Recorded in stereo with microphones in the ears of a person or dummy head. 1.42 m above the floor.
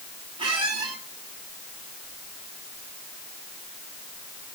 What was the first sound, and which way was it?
A squeak, 25° right (ahead or behind).